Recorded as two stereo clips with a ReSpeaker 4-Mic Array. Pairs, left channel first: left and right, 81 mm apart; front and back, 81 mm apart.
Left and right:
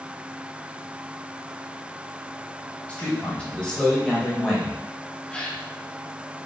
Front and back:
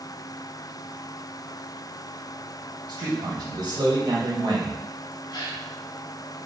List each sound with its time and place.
2.9 s a man speaking: 165° left, 3.5 m; by 4.8 s 175° right, 2.5 m
5.3 s a gasp: 15° left, 1.3 m